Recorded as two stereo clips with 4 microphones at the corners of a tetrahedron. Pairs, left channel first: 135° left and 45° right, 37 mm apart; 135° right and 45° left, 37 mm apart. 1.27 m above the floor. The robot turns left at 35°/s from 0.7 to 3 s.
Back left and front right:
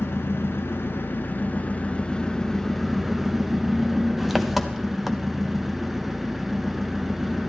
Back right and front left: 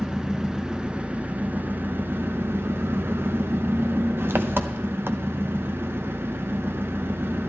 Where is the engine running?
120° left, 0.8 m; by 7.5 s 40° left, 0.8 m.